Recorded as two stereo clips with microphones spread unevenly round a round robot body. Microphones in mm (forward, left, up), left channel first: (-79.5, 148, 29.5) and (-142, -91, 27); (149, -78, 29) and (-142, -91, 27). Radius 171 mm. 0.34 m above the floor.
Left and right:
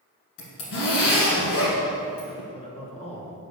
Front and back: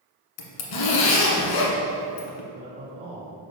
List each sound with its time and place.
0.4 s a zipper: 20° left, 1.1 m
2.5 s a man speaking: 125° left, 1.5 m